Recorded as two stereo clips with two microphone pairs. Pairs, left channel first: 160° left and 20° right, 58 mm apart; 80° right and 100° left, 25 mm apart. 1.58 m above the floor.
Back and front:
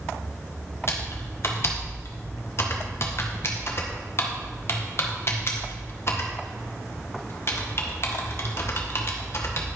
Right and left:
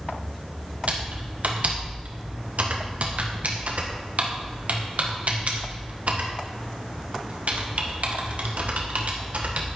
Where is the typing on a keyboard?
120° left, 1.7 m.